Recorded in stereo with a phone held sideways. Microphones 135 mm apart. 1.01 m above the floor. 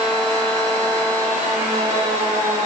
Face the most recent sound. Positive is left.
turn(degrees=-80)